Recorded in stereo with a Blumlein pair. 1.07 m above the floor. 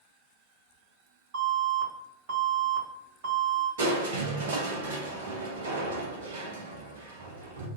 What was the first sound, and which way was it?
An alarm, 45° right.